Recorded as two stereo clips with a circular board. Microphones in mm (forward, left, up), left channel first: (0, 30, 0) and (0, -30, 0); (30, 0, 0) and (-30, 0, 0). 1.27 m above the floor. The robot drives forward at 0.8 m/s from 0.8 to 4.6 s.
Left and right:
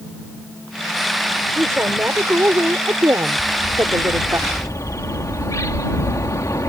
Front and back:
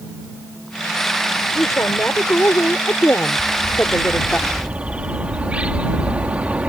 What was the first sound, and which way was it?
A woman speaking, 40° right.